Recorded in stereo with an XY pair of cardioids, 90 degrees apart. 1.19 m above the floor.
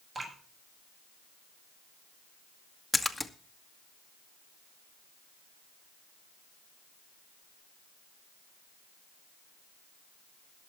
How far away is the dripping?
About 7.5 m.